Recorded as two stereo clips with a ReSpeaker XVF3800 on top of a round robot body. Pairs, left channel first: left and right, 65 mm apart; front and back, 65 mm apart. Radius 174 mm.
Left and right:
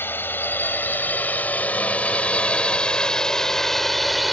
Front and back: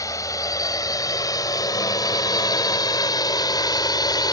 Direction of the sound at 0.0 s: 35° left.